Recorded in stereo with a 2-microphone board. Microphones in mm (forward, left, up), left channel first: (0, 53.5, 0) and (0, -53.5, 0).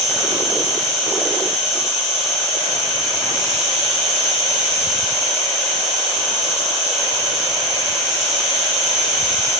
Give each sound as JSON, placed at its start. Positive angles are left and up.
{"t": 0.0, "sound": "an insect", "side_deg": 0, "distance_m": 1.5}